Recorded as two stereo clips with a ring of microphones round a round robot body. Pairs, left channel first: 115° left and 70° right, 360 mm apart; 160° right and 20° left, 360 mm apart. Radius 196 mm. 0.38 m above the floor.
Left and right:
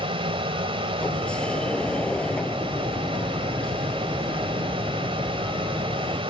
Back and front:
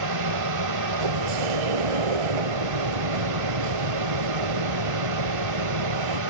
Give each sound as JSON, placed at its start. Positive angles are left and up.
{"t": 0.0, "sound": "an aircraft", "azimuth_deg": 5}
{"t": 1.0, "sound": "a sliding door", "azimuth_deg": 25}